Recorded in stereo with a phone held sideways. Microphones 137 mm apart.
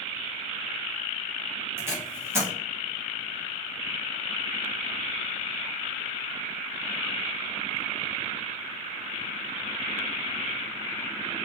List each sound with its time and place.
1.8 s tape being pulled: 15° right (ahead or behind), 0.9 m